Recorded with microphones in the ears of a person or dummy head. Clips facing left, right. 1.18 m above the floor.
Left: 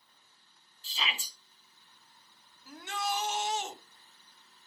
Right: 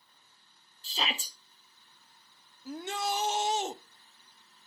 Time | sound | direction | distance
0.8 | a shout | 40° right (ahead or behind) | 0.9 m
2.6 | a shout | 30° right (ahead or behind) | 0.5 m